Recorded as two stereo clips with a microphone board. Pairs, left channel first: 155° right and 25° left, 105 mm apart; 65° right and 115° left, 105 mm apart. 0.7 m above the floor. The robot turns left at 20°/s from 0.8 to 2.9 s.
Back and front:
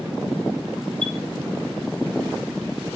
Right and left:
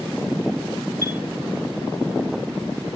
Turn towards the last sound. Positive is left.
turn(degrees=10)